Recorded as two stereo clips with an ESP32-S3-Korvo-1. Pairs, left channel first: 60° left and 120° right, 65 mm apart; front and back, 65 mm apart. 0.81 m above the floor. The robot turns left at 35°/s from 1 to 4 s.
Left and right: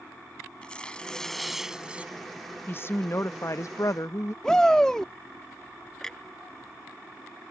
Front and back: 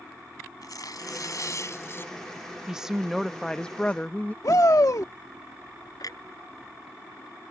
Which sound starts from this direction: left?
A woman speaking, at 2.7 s.